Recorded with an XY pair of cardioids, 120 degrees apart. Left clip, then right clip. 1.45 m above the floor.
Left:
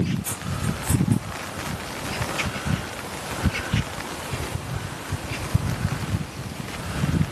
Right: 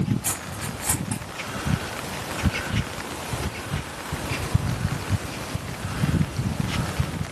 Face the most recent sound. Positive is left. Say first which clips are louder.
# even
turn(degrees=-70)